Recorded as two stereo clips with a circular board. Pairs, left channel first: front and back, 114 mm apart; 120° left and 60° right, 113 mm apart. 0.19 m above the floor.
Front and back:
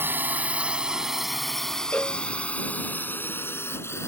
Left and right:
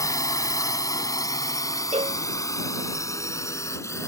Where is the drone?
130° left; by 4.1 s 60° left.